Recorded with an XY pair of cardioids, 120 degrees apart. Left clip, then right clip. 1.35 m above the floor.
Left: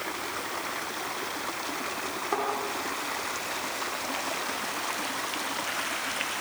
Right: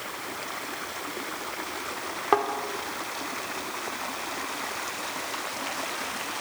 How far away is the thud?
About 2 m.